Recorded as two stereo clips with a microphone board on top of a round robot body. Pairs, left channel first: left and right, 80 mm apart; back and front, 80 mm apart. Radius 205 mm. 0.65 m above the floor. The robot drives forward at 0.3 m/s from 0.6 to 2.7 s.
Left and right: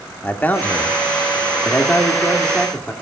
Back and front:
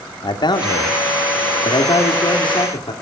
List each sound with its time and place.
0.2 s a man speaking: 160° left, 1.4 m; by 2.9 s 165° left, 2.0 m